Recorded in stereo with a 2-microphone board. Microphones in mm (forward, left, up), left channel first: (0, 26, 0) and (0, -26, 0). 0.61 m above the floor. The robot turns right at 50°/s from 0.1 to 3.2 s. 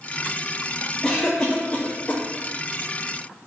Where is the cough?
10° left (ahead or behind), 1.0 m; by 2.2 s 25° left (ahead or behind), 1.0 m.